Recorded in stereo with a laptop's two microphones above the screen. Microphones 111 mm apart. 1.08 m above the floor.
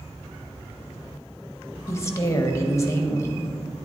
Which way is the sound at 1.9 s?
25° left (ahead or behind).